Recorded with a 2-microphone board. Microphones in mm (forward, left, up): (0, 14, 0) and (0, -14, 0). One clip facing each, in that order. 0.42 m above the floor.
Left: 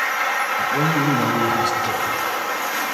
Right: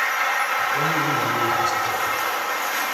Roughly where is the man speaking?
Left.